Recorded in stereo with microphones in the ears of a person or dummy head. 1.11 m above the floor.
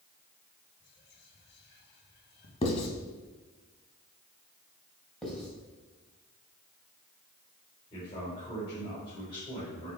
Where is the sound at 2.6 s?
30° left (ahead or behind), 1.5 m.